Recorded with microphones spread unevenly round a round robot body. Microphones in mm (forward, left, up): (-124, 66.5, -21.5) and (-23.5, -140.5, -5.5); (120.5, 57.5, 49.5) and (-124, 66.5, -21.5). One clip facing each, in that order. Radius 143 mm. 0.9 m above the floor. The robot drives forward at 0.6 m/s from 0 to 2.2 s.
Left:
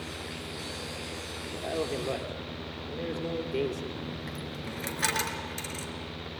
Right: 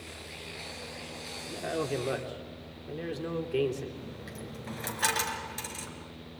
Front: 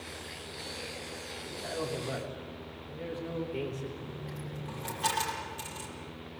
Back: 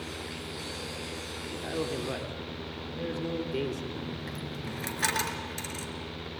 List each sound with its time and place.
1.5 s a man speaking: 140° right, 2.5 m; by 3.9 s 145° right, 3 m
4.0 s a dropped coin: straight behind, 4.5 m